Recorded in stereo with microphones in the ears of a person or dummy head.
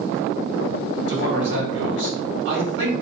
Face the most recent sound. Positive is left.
turn(degrees=-70)  # may be behind; listen again after turning